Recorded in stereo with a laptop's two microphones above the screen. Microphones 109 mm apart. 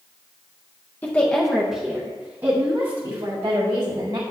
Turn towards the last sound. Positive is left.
turn(degrees=-50)  # may be behind; listen again after turning